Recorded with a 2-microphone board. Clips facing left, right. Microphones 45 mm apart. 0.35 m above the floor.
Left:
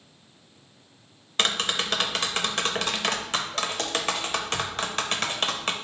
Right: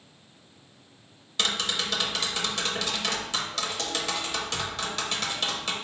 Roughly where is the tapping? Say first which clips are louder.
Left 3 dB; left.